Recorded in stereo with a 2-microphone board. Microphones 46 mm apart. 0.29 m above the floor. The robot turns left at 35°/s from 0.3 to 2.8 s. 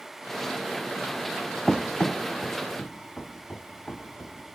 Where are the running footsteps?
5° left (ahead or behind), 0.5 m; by 4.4 s 25° left (ahead or behind), 4 m.